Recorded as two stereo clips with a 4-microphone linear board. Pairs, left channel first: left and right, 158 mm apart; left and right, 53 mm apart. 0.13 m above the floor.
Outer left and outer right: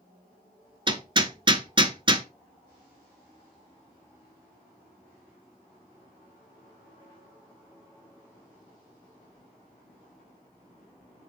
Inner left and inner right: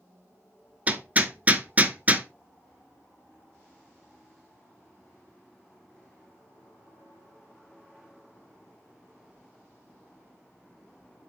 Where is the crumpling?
I don't hear crumpling.